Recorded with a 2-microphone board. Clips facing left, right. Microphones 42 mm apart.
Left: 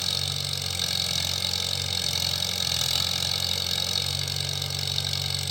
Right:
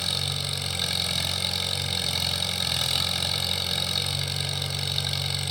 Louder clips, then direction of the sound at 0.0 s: Right 1 dB; 10° right (ahead or behind).